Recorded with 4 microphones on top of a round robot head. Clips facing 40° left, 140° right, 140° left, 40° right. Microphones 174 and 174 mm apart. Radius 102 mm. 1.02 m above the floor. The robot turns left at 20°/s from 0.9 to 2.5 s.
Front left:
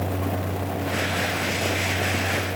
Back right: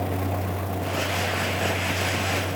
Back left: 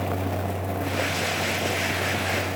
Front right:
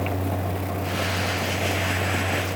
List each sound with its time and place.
Only background noise.